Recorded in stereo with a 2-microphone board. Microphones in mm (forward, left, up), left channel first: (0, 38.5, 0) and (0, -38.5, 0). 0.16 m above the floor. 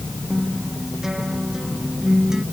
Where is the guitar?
5° right (ahead or behind).